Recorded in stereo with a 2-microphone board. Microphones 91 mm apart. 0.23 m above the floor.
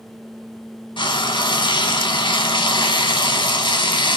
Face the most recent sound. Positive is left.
turn(degrees=60)  # may be behind; listen again after turning